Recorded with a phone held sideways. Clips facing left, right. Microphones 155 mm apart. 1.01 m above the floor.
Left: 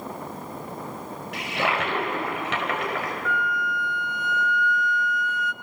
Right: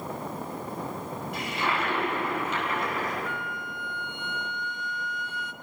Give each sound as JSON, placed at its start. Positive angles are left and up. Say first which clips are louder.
{"t": 1.3, "sound": "a toilet flushing", "louder": "left 4 dB", "side_deg": 75, "distance_m": 4.5}
{"t": 3.2, "sound": "a flute", "louder": "left 7 dB", "side_deg": -25, "distance_m": 0.7}